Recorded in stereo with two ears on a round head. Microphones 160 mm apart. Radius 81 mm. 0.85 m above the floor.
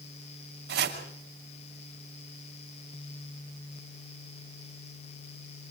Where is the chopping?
75° right (ahead or behind), 7 m.